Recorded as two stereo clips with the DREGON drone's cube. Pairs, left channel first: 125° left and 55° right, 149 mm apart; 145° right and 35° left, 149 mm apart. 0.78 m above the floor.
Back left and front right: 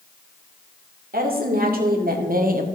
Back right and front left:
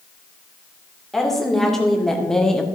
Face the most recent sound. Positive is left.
turn(degrees=-60)